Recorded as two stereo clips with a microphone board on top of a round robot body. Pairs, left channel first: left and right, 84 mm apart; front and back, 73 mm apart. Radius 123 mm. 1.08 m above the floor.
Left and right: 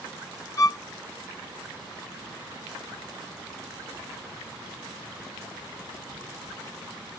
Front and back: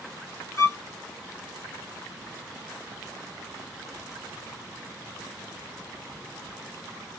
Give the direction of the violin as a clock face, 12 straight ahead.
10 o'clock.